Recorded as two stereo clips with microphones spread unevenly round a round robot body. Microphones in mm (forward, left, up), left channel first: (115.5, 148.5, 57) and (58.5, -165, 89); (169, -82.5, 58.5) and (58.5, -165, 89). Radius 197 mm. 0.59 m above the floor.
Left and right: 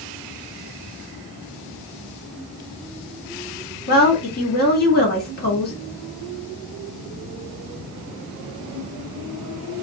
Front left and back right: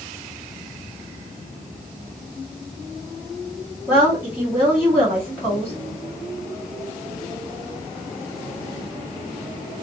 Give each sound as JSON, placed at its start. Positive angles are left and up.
{"t": 3.9, "sound": "a woman speaking", "azimuth_deg": 125, "distance_m": 1.6}